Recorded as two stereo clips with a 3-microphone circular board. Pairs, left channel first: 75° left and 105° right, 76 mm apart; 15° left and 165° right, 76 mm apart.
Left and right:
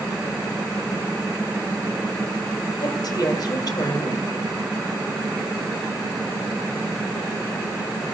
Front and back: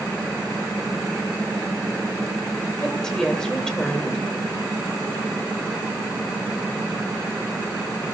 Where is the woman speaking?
95° left, 2 m.